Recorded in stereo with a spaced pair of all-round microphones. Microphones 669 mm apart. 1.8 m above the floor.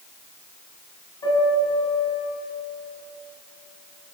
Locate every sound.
1.2 s a piano: 75° left (ahead or behind), 10 m